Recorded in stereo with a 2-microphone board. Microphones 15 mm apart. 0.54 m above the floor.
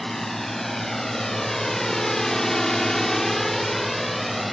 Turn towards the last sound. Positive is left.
turn(degrees=0)  # may be behind; listen again after turning